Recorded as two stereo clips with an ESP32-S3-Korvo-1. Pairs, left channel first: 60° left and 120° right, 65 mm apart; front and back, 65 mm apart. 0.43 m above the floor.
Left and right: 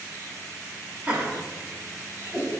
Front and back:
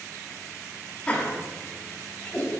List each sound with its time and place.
1.1 s laughter: 60° right, 1.4 m; by 2.5 s 65° right, 2.5 m